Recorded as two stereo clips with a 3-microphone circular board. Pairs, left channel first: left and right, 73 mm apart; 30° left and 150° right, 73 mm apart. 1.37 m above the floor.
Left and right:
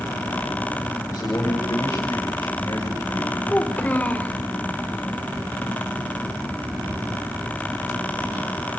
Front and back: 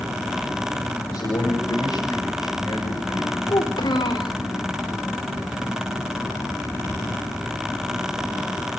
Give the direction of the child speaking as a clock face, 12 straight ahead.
11 o'clock.